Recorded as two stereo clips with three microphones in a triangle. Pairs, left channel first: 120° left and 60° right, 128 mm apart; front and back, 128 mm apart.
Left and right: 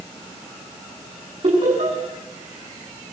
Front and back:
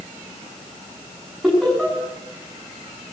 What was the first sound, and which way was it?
Laughter, 95° right.